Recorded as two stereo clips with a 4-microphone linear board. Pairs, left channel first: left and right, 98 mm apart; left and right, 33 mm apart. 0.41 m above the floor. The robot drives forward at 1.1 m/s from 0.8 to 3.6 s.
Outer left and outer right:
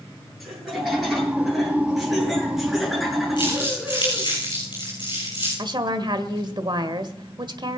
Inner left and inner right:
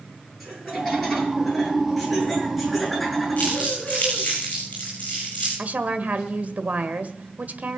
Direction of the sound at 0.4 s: Centre (ahead or behind).